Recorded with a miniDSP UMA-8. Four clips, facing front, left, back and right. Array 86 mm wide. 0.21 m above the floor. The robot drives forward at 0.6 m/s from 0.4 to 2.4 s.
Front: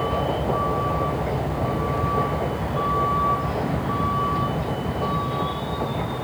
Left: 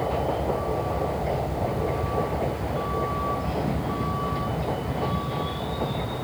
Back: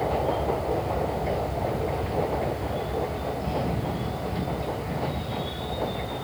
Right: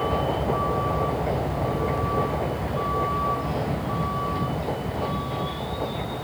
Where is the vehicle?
35° right; by 6.2 s 5° left.